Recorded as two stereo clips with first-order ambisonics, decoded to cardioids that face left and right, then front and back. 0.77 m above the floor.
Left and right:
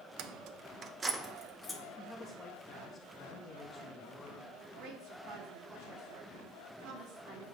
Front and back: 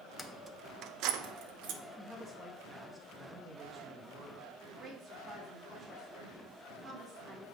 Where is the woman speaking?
120° right, 2.5 m.